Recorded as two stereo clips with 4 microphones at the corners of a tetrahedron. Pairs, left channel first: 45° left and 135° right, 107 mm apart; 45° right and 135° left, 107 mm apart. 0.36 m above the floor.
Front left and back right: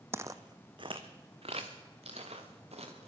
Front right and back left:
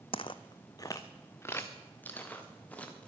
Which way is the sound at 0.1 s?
70° right.